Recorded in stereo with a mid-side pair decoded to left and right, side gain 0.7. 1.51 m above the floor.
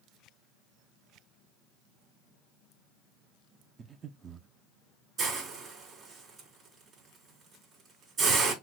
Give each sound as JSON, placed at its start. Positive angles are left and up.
{"t": 3.8, "sound": "breathing", "azimuth_deg": -30, "distance_m": 0.5}
{"t": 5.2, "sound": "a hiss", "azimuth_deg": -30, "distance_m": 4.0}